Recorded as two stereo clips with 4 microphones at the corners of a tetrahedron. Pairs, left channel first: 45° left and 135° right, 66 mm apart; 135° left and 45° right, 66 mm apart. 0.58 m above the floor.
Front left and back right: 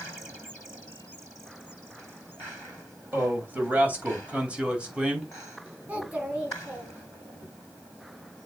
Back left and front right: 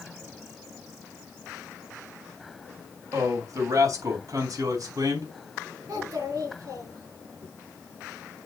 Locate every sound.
3.1 s a man speaking: 75° right, 3.5 m; by 5.3 s 60° right, 3.5 m
5.9 s a child speaking: 70° right, 3.5 m